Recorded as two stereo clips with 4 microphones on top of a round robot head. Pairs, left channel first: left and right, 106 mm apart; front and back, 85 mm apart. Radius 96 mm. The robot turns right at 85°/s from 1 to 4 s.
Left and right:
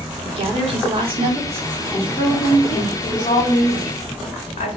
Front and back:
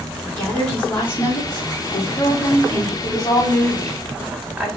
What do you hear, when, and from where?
0.2 s a woman speaking: 70° right, 2 m; by 2.9 s 95° left, 2 m
3.0 s a woman speaking: 35° left, 1.6 m; by 4.7 s 115° left, 1.6 m